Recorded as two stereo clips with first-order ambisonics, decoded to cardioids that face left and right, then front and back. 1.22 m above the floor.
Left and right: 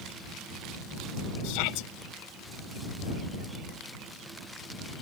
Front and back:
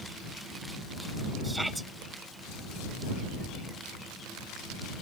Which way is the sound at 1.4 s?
95° left.